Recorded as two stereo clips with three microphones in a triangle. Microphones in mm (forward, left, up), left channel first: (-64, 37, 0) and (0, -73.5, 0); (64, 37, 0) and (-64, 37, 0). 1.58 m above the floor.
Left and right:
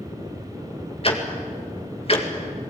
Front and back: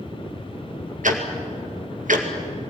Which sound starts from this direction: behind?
Ticking, at 1.0 s.